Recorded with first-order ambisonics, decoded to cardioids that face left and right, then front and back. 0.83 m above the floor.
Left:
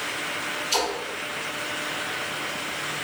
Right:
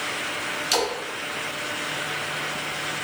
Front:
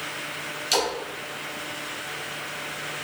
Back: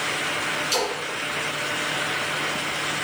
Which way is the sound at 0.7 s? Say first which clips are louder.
Right 1 dB, front 3 dB; 50° right.